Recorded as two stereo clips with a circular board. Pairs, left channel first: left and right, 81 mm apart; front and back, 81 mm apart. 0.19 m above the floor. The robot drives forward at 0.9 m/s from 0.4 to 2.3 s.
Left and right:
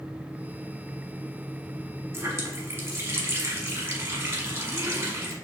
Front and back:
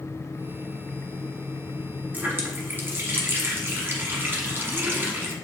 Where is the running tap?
120° right, 0.8 m; by 5.3 s 130° right, 0.9 m.